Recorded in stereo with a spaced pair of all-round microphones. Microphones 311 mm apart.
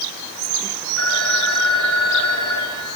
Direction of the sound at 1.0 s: 55° left (ahead or behind).